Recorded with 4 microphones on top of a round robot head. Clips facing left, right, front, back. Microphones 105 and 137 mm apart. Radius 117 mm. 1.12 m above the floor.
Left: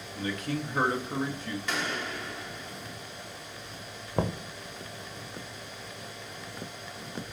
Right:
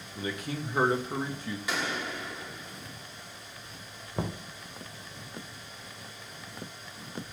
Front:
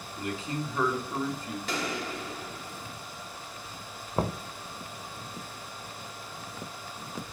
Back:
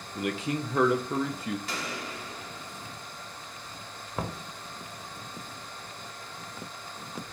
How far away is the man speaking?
About 0.8 m.